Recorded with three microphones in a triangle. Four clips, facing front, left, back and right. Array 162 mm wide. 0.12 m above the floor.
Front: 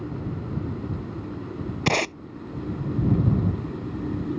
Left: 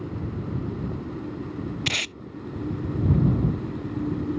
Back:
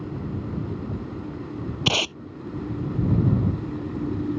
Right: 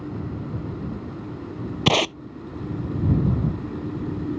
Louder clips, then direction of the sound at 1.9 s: Right 12 dB, front 3 dB; 75° right.